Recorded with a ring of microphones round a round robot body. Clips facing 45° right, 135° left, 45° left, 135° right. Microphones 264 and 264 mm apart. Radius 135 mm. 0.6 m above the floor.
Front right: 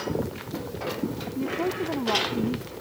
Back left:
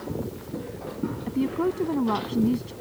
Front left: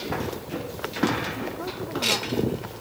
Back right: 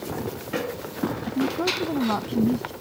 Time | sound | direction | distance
1.3 | a woman speaking | 160° right | ?